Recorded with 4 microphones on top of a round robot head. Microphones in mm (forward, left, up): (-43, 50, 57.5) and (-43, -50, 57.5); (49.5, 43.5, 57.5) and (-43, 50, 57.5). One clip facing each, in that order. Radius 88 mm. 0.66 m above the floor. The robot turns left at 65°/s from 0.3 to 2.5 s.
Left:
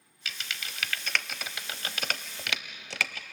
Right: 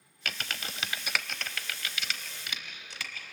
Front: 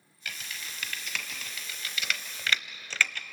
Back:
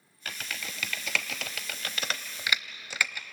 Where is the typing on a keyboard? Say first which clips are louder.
Right 3 dB, back 3 dB; 120° right, 0.7 m; by 3.2 s 100° left, 0.7 m.